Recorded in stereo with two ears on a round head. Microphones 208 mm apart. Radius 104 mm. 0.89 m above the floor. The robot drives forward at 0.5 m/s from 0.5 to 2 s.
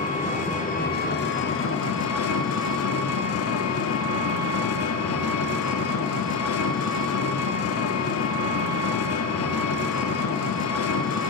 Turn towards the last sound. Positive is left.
turn(degrees=65)  # may be behind; listen again after turning